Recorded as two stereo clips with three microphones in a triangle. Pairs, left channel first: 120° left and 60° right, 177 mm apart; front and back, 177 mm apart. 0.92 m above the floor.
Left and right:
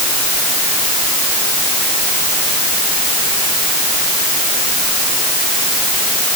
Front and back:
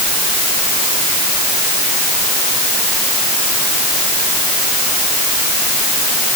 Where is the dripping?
No dripping in this recording.